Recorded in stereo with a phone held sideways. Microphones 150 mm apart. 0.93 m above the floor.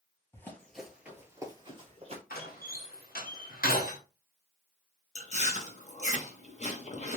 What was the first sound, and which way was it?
Running footsteps, 15° left (ahead or behind).